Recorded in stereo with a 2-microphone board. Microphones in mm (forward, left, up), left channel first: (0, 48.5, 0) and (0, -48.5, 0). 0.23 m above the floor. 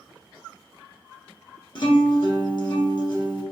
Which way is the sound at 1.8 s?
50° left (ahead or behind).